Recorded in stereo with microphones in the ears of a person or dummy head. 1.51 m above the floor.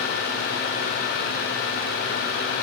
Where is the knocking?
I don't hear knocking.